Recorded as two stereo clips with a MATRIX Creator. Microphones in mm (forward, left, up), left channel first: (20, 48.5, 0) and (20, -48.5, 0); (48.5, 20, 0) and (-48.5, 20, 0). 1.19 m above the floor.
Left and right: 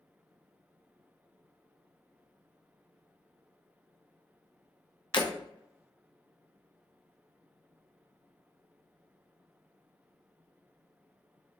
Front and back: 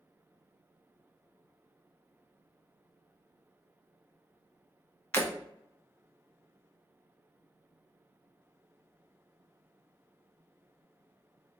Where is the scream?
I don't hear a scream.